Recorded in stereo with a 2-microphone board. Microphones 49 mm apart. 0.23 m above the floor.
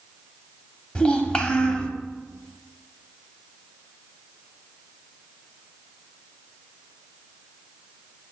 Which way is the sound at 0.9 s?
20° left (ahead or behind).